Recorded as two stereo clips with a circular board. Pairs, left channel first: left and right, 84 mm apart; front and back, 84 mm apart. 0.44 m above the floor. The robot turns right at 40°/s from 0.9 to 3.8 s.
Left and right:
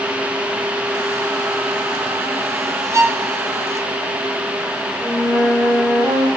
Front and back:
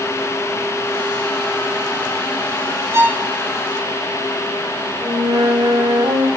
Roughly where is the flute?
Behind right.